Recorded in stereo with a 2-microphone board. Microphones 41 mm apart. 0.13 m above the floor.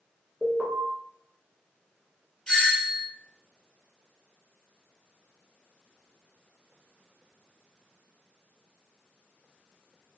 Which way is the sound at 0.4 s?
35° right (ahead or behind).